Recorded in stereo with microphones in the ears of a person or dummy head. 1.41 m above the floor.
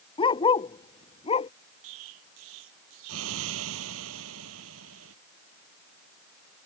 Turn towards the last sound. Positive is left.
turn(degrees=-75)  # may be behind; listen again after turning